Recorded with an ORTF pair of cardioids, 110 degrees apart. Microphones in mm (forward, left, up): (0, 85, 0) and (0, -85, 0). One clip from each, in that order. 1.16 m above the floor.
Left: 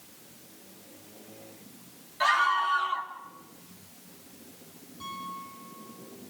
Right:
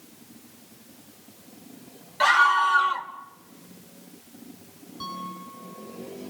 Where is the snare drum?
No snare drum in this recording.